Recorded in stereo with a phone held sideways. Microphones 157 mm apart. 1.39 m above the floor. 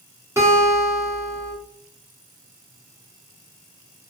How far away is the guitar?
About 1.3 m.